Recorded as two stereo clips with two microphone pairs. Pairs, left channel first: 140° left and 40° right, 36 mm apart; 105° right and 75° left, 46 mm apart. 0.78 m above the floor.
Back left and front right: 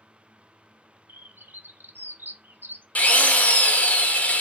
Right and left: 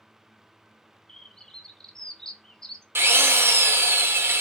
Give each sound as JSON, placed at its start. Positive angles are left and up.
{"t": 1.1, "sound": "a bird", "azimuth_deg": -25, "distance_m": 0.6}
{"t": 3.0, "sound": "a drill", "azimuth_deg": 95, "distance_m": 0.7}